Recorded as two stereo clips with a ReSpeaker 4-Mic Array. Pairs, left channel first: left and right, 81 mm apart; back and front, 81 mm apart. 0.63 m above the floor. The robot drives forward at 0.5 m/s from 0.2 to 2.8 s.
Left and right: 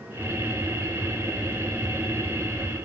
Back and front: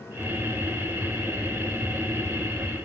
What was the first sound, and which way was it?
Only background noise.